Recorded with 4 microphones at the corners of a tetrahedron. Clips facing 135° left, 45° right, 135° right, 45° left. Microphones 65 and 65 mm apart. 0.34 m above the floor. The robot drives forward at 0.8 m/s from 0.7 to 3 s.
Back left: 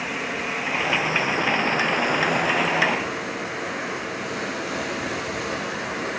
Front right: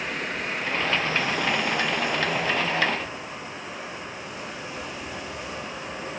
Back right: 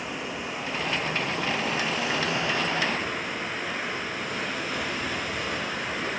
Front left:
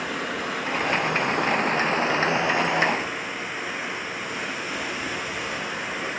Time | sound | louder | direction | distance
0.0 | running water | back left 2 dB, front left 5 dB | 50° left | 1.5 m